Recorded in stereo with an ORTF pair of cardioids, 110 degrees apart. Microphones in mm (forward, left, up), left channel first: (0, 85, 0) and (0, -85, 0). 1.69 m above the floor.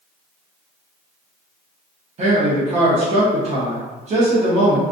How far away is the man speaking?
About 0.9 m.